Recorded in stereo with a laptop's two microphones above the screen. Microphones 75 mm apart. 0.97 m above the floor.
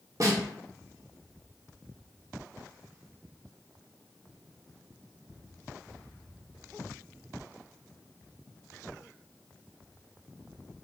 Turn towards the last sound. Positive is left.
turn(degrees=-50)  # may be behind; listen again after turning